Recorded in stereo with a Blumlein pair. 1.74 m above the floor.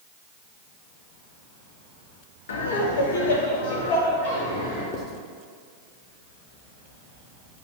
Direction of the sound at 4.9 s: 35° left.